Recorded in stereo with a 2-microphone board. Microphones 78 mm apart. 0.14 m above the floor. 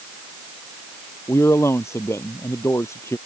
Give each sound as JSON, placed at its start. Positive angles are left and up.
{"t": 1.3, "sound": "a man speaking", "side_deg": 35}